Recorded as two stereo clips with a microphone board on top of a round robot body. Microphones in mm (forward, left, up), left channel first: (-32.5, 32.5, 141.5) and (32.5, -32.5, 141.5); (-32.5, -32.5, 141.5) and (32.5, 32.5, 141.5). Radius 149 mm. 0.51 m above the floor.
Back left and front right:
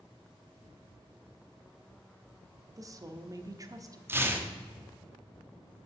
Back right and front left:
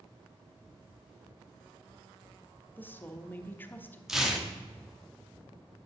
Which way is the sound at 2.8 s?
75° right.